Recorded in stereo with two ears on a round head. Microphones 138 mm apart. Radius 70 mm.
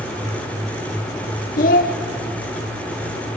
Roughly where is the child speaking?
Left.